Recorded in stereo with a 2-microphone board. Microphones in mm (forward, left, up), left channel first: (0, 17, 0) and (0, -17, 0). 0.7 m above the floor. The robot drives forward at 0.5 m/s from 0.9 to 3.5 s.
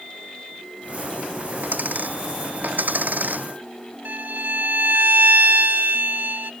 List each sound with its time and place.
1.6 s a dropped coin: 55° right (ahead or behind); by 3.5 s 60° right (ahead or behind)
4.0 s a violin: 65° right (ahead or behind)